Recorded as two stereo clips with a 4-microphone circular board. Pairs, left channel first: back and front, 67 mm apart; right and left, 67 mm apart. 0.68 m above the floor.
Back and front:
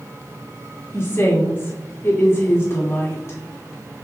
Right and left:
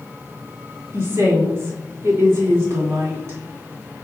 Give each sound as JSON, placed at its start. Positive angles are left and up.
{"t": 0.9, "sound": "a woman speaking", "azimuth_deg": 135, "distance_m": 2.0}